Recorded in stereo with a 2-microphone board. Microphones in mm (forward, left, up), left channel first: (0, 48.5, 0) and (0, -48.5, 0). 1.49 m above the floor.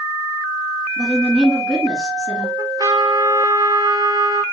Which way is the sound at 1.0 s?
5° right (ahead or behind).